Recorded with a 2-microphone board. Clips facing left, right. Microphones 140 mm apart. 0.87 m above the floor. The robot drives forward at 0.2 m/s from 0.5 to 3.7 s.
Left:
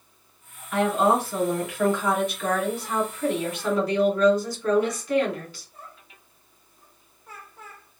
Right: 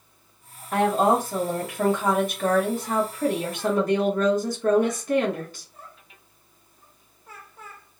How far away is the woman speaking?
About 1.3 m.